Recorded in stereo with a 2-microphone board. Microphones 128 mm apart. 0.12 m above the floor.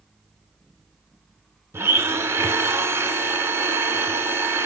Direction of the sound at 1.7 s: 20° right (ahead or behind).